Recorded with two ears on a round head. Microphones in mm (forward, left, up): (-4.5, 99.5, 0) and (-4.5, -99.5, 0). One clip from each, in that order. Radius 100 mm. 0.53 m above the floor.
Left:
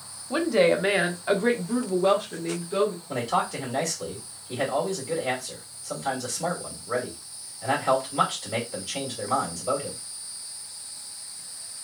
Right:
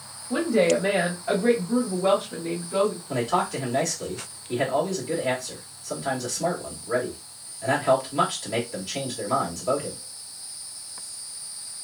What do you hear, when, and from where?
0.3 s a woman speaking: 45° left (ahead or behind), 1.0 m; by 3.0 s 10° left (ahead or behind), 1.3 m
3.1 s a man speaking: centre (ahead or behind), 1.8 m